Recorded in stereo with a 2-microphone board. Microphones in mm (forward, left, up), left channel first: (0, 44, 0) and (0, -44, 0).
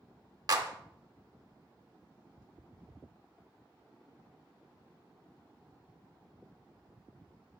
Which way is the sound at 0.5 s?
45° right (ahead or behind).